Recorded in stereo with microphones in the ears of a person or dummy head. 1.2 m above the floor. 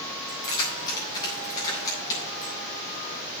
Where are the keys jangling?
25° left (ahead or behind), 6 m; by 2.6 s 20° left (ahead or behind), 8 m.